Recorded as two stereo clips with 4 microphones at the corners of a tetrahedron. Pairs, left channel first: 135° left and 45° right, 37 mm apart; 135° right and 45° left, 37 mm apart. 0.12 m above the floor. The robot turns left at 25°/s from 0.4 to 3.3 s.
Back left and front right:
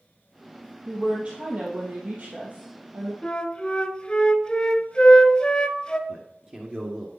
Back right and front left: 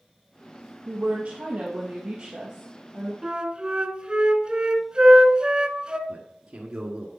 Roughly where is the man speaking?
Ahead.